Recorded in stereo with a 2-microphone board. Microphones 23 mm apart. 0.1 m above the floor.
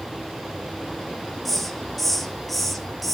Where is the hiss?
Centre (ahead or behind), 1.2 m.